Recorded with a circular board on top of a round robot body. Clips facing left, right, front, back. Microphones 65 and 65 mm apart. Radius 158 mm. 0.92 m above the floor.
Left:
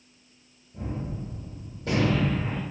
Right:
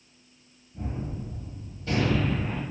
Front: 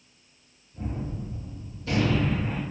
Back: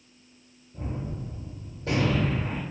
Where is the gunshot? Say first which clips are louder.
Left 1 dB, front 1 dB; 130° left, 0.8 m.